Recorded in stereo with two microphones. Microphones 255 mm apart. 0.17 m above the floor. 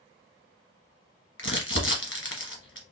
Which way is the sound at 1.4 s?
55° left (ahead or behind).